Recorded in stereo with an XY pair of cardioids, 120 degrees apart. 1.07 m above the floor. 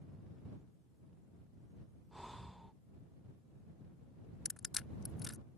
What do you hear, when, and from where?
2.1 s breathing: 5° right
4.5 s crushing: 25° left